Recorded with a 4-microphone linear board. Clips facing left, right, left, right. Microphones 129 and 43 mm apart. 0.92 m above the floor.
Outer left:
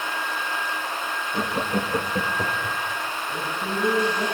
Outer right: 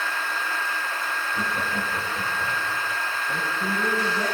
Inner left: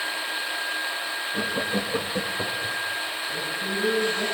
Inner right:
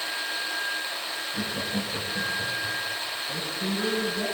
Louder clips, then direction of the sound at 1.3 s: Outer left 6 dB, inner left 5 dB; 35° left (ahead or behind).